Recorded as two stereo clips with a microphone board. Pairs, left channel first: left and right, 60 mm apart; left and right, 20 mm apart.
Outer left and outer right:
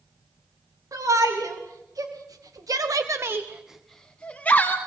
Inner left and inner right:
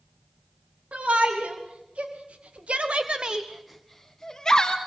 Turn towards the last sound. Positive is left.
turn(degrees=30)  # may be behind; listen again after turning